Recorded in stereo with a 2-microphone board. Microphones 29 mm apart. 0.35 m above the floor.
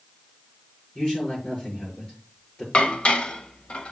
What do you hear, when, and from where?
0.9 s a man speaking: 35° left (ahead or behind), 6 m
2.7 s dishes clattering: 45° left (ahead or behind), 1.1 m